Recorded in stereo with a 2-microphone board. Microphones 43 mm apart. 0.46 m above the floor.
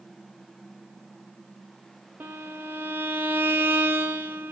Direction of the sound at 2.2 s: 55° right (ahead or behind).